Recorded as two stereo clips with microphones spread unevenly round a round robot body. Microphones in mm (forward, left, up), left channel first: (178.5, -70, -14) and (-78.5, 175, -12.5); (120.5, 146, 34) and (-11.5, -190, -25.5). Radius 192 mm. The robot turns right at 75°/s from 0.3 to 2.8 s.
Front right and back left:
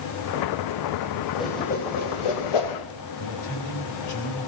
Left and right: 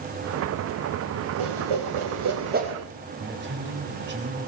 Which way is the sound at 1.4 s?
135° right.